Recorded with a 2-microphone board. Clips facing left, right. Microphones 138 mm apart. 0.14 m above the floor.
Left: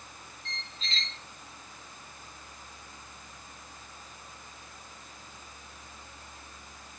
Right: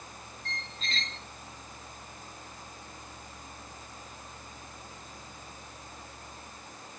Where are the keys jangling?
I don't hear keys jangling.